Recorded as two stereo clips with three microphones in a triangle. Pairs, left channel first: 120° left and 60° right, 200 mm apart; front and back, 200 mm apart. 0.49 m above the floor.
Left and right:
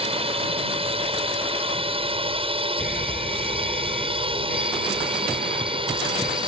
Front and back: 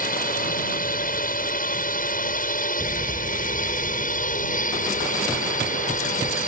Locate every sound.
0.0 s a drone: 10° right
2.8 s an alarm: 155° left